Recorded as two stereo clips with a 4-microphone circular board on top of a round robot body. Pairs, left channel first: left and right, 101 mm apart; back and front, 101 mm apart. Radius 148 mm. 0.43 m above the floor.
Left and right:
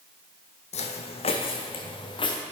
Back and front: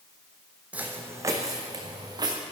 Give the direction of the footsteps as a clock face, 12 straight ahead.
9 o'clock.